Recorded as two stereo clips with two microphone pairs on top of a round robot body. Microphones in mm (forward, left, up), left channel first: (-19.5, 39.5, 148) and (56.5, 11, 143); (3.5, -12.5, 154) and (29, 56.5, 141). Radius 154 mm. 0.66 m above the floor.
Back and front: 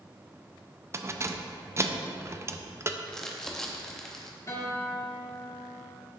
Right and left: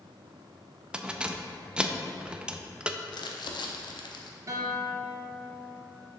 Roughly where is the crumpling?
Behind right.